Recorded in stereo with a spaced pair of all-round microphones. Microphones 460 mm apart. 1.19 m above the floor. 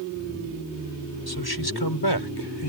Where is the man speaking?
50° left (ahead or behind); by 2.7 s 55° left (ahead or behind).